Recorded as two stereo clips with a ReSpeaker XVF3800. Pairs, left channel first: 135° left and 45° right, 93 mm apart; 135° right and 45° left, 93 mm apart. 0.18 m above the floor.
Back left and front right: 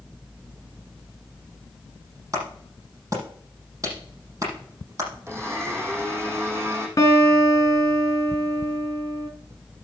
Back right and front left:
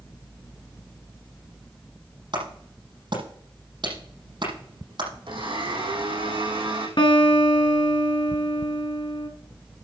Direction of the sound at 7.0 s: 170° right.